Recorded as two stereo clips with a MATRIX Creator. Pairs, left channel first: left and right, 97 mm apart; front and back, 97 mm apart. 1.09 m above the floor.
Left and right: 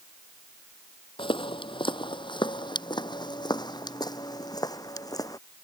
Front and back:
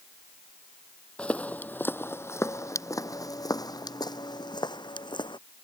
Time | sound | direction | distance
1.2 | footsteps | 75° left | ?